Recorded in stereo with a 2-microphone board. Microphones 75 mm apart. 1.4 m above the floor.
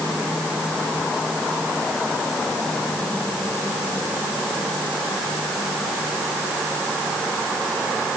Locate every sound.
Only background noise.